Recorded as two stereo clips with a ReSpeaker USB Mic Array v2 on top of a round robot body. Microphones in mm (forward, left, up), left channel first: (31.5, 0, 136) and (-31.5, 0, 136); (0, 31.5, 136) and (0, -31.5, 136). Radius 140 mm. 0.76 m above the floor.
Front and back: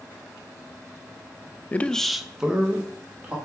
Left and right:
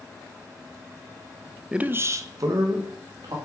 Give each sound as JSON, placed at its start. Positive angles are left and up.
{"t": 1.7, "sound": "a man speaking", "azimuth_deg": -25, "distance_m": 0.5}